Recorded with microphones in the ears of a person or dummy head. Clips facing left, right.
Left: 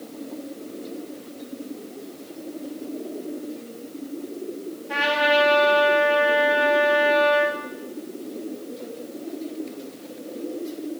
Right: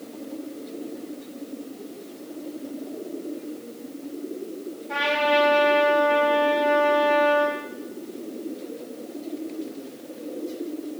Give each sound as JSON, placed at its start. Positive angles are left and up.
{"t": 4.9, "sound": "a trumpet", "side_deg": 10, "distance_m": 4.0}